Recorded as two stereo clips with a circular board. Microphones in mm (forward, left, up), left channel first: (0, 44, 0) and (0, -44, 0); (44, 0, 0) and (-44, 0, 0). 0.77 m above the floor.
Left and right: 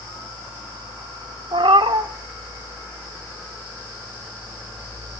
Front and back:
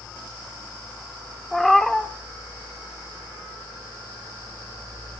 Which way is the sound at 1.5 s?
90° right.